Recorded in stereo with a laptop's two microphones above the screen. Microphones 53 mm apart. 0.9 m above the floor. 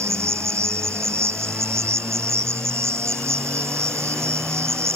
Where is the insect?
60° right (ahead or behind).